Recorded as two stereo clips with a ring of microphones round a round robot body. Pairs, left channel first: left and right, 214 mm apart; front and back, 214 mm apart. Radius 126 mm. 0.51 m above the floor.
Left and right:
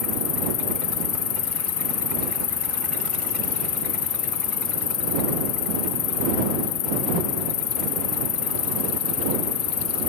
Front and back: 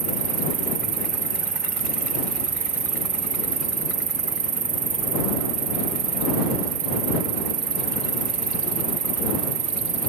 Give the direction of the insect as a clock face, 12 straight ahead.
8 o'clock.